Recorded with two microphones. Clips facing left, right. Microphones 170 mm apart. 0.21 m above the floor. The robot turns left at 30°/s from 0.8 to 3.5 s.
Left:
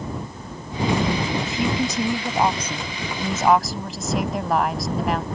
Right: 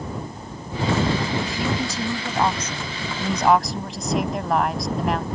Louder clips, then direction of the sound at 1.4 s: Left 2 dB; 25° left (ahead or behind).